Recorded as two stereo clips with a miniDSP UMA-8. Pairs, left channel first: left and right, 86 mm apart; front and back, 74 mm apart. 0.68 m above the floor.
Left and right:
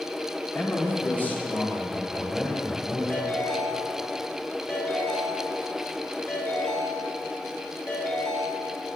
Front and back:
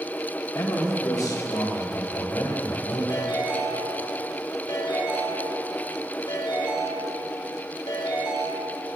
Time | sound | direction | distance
0.6 | a man speaking | 30° left | 2 m
3.1 | a ringtone | 25° left | 6.5 m